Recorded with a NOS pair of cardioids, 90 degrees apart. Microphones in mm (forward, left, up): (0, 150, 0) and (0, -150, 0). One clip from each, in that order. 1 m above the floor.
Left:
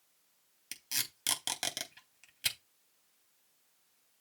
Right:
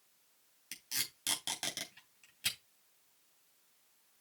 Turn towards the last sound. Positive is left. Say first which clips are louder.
# left 2 dB
turn(degrees=35)